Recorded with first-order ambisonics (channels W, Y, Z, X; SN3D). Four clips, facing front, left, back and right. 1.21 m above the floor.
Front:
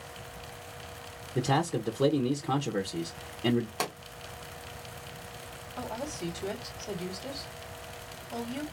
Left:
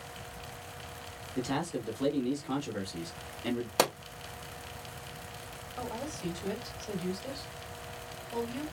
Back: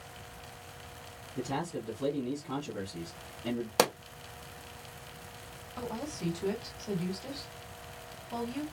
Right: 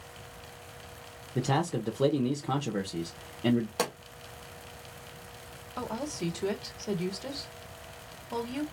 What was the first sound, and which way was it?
A man speaking, 40° right.